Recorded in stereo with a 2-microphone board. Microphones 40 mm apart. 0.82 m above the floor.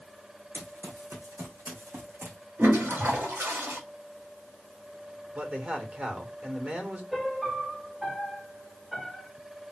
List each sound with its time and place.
0.5 s running footsteps: 70° right (ahead or behind), 2.5 m; by 2.4 s 60° right (ahead or behind), 2.5 m
2.6 s a toilet flushing: 75° right (ahead or behind), 3.5 m
5.3 s a man speaking: 30° right (ahead or behind), 2 m
7.1 s a piano: 5° right (ahead or behind), 1.2 m